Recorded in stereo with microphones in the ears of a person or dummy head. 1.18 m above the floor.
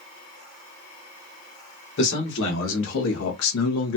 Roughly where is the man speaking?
Left.